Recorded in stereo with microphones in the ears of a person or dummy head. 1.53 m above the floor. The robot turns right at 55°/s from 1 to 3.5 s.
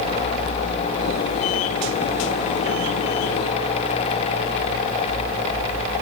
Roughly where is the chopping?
I don't hear chopping.